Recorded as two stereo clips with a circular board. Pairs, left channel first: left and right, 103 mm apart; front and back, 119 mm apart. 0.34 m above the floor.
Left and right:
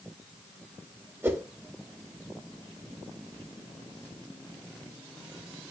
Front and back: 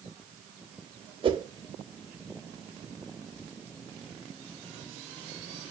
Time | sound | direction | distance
1.2 | a whoosh | 150° right | 0.7 m